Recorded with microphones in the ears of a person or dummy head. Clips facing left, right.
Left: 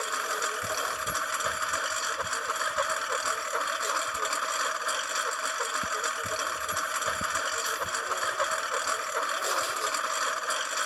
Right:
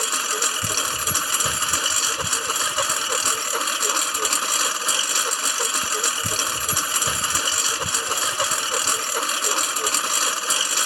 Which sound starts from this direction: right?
A lawn mower, at 0.0 s.